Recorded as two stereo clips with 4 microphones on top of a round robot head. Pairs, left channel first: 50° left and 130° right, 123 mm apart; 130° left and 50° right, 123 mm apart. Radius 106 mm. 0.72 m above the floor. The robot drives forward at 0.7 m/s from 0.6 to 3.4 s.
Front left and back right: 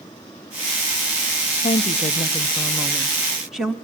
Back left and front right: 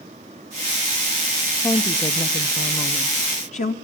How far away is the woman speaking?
About 0.9 m.